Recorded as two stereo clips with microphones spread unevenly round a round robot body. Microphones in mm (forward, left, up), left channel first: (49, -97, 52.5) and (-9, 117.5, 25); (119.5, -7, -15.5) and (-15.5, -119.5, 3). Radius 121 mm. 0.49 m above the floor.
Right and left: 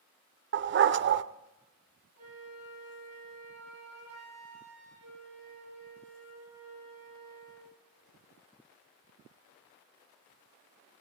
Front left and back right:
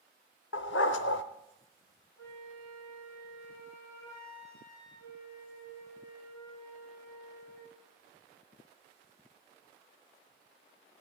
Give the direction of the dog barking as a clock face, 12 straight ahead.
10 o'clock.